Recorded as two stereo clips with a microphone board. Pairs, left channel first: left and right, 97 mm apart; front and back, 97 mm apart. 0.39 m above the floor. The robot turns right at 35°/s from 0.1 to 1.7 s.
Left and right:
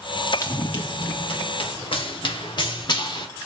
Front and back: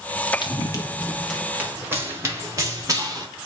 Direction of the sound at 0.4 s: 35° left.